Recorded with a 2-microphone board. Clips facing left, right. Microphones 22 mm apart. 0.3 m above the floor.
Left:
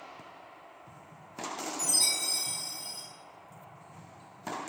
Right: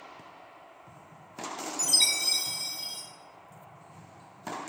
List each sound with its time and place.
1.8 s a chime: 70° right (ahead or behind), 2 m